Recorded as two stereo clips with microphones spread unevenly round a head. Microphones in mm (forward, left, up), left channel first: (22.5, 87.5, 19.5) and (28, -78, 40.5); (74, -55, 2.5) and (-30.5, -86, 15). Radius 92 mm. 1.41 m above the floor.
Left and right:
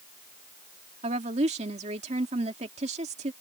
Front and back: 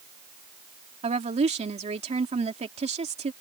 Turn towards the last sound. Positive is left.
turn(degrees=-145)